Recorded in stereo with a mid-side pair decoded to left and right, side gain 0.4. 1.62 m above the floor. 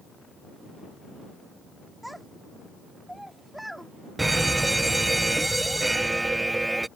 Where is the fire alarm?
15° right.